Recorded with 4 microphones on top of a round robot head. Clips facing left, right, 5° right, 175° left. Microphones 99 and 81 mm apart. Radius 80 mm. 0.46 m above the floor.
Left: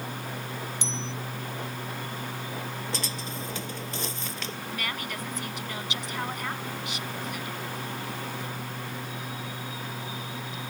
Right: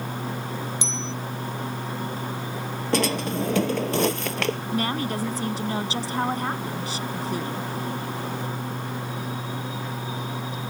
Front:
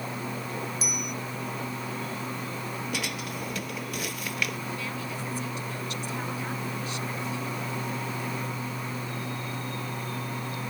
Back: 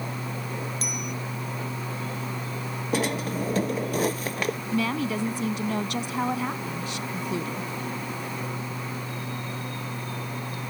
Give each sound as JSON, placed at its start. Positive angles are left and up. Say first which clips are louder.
{"t": 0.8, "sound": "a bicycle bell", "louder": "right 3 dB, back 1 dB", "azimuth_deg": -90}
{"t": 2.9, "sound": "a drawer", "louder": "right 12 dB, back 7 dB", "azimuth_deg": -120}
{"t": 4.7, "sound": "a woman speaking", "louder": "right 9 dB, back 8 dB", "azimuth_deg": -145}